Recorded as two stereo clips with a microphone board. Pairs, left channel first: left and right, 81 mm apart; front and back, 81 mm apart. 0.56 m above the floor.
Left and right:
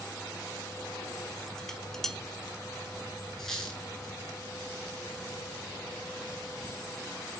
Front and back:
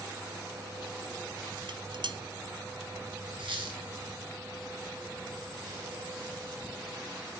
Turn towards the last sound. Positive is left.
turn(degrees=175)